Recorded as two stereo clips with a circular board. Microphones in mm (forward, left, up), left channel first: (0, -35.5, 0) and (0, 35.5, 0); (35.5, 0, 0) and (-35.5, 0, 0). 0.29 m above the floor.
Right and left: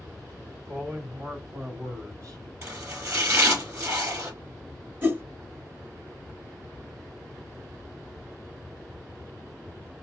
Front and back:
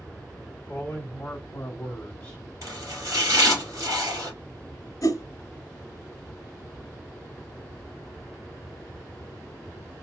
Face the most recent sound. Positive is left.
turn(degrees=30)